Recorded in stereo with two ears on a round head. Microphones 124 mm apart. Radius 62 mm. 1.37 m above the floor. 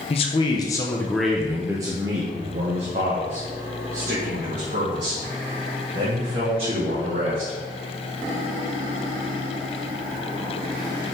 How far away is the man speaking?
About 1.0 m.